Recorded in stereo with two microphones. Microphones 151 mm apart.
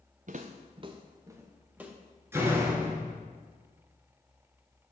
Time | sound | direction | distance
0.3 | footsteps | 60° right (ahead or behind) | 0.6 m
2.3 | a door slam | 15° right (ahead or behind) | 1.2 m